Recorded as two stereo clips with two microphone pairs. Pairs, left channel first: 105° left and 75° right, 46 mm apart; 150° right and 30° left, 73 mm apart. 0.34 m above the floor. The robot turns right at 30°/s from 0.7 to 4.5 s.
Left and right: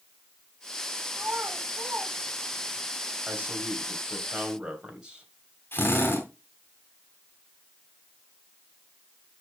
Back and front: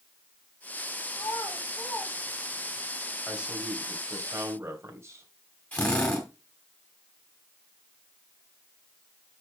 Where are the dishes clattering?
I don't hear dishes clattering.